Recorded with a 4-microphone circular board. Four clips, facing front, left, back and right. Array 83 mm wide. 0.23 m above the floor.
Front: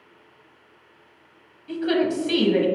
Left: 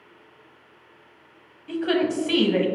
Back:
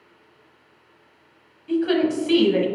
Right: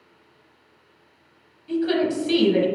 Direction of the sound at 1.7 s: 105° left.